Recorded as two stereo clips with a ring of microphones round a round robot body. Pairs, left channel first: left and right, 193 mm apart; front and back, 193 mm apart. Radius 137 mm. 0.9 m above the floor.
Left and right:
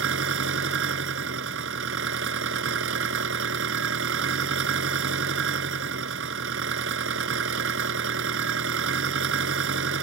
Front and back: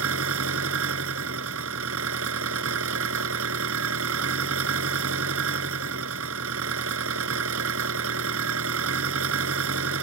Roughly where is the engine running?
Behind right.